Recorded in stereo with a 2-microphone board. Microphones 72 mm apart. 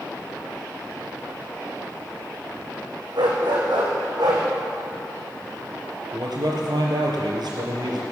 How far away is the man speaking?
About 4 m.